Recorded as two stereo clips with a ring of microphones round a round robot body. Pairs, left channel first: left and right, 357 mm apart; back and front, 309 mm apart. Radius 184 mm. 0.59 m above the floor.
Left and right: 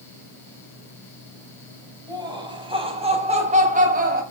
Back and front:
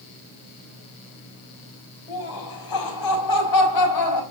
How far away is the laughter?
About 5 m.